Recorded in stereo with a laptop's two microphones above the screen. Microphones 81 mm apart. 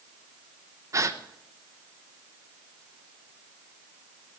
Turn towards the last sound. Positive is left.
turn(degrees=-40)  # may be behind; listen again after turning